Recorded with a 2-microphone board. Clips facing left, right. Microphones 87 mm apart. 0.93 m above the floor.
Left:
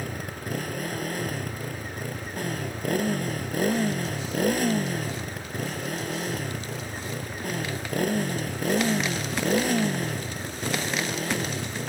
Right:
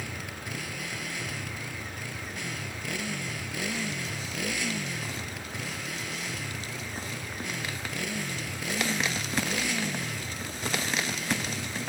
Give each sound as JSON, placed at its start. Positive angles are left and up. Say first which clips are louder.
{"t": 0.0, "sound": "a motorcycle", "louder": "left 4 dB", "side_deg": 45}